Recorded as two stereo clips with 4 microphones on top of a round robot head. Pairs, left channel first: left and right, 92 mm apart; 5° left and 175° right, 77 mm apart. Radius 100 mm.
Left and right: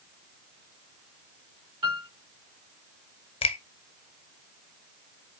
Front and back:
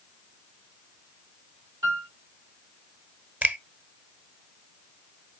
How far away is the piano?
About 2.5 m.